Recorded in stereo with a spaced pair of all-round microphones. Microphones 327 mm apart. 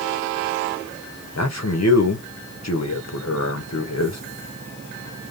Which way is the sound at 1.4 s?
50° left (ahead or behind).